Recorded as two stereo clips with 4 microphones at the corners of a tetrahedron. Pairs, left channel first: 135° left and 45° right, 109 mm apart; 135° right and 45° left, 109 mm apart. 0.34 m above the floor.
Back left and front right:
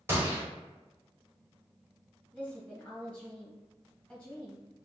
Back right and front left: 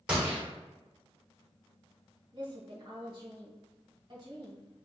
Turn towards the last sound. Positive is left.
turn(degrees=65)